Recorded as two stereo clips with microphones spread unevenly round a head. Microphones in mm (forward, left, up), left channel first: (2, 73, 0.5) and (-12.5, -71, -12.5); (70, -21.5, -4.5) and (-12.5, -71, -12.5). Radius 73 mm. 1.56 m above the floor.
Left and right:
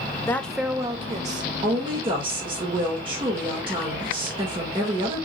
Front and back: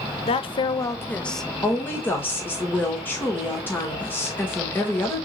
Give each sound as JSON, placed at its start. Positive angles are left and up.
{"t": 0.2, "sound": "a woman speaking", "azimuth_deg": 10, "distance_m": 0.8}
{"t": 1.6, "sound": "a woman speaking", "azimuth_deg": -35, "distance_m": 1.6}